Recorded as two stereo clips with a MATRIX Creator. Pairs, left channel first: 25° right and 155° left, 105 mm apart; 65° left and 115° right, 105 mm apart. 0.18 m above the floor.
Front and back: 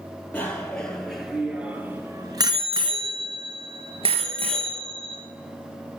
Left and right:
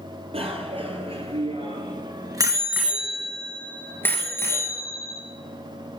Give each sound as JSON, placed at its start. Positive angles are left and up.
{"t": 0.3, "sound": "a bicycle bell", "azimuth_deg": -100, "distance_m": 3.0}